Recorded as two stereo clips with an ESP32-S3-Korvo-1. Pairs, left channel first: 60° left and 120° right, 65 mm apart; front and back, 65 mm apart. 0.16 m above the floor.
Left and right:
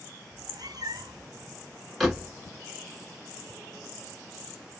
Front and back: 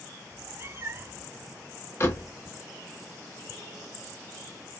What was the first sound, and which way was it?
A cat meowing, 130° right.